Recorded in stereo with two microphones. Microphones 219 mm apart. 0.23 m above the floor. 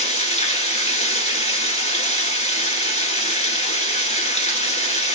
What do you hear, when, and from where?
0.0 s running water: 30° left (ahead or behind), 1.4 m